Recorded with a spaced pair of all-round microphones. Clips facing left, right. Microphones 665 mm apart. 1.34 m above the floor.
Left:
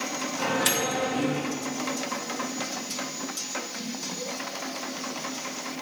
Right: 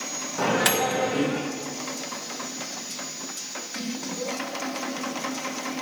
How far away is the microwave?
About 1.0 m.